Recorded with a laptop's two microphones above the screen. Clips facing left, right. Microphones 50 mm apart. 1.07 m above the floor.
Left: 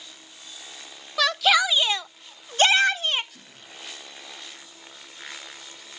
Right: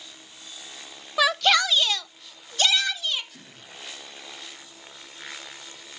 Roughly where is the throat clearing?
Right.